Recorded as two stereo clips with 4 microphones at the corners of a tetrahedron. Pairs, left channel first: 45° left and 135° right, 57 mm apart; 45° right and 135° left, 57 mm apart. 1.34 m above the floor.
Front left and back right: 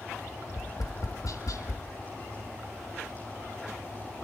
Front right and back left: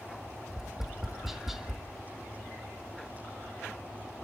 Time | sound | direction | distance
0.5 | tapping | 50° left | 1.8 m